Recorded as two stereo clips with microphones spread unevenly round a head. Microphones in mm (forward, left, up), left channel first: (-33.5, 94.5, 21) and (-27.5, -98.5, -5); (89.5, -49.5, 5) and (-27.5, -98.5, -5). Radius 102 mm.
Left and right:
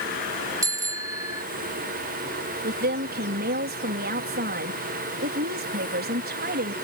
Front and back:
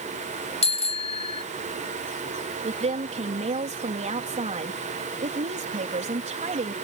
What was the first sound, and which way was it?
A bicycle bell, 10° right.